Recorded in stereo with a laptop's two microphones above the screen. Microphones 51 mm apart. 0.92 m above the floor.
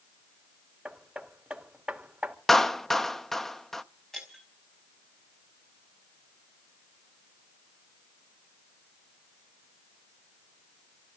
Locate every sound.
0.8 s hammering: 20° right (ahead or behind), 2.5 m
2.5 s a clap: 5° left (ahead or behind), 0.6 m
4.1 s breaking glass: 5° left (ahead or behind), 4.5 m